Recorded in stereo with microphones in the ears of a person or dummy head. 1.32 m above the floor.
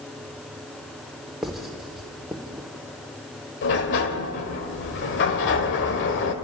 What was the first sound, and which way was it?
Writing, centre (ahead or behind).